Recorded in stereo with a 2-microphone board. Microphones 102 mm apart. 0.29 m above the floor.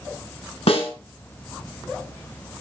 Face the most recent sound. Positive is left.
turn(degrees=70)  # may be behind; listen again after turning